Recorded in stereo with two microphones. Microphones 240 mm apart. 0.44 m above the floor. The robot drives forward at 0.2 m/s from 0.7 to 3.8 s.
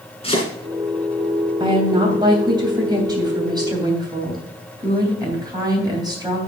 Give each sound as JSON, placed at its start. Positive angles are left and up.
{"t": 0.2, "sound": "chopping", "side_deg": 25, "distance_m": 2.5}
{"t": 1.6, "sound": "a woman speaking", "side_deg": -20, "distance_m": 2.5}